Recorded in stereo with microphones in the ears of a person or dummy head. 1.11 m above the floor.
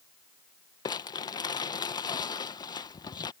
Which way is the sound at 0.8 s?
20° left (ahead or behind).